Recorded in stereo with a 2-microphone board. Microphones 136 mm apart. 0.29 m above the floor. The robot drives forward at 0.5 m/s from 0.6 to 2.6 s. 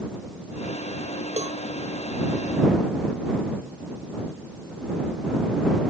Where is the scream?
No scream in this recording.